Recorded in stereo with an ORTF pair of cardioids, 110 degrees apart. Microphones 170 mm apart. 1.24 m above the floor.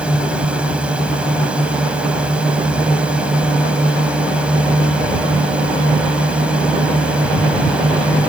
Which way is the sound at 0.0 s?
5° right.